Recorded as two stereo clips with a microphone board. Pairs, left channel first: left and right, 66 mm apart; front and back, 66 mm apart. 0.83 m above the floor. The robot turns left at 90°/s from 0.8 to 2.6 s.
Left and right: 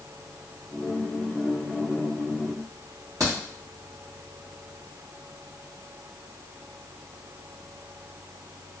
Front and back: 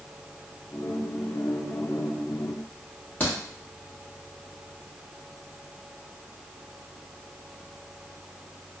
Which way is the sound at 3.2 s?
65° right.